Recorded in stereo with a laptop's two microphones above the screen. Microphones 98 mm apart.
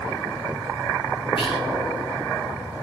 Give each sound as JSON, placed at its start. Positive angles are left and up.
{"t": 1.4, "sound": "whispering", "side_deg": 70, "distance_m": 3.0}